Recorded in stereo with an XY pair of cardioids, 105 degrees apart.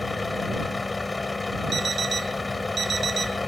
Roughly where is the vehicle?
Ahead.